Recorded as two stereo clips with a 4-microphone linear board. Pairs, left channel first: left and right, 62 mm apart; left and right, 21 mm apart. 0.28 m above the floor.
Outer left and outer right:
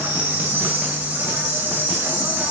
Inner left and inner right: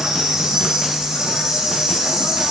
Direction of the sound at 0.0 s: 35° right (ahead or behind).